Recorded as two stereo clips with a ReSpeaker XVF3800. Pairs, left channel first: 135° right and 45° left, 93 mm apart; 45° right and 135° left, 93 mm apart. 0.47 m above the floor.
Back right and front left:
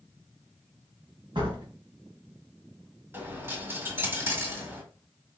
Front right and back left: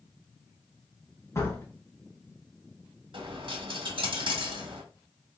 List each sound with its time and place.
1.4 s a door slam: 15° left, 2 m
3.1 s a dropped coin: 110° left, 1.4 m